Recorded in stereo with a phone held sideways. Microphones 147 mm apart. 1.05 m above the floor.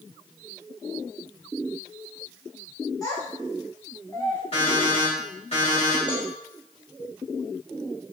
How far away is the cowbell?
About 3.5 m.